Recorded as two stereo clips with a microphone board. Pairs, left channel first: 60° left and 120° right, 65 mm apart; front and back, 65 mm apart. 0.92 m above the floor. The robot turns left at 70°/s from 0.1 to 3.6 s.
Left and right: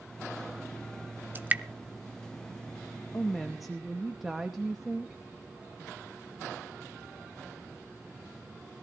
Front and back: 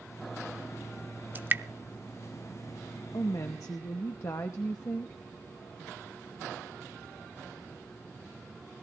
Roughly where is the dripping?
Behind right.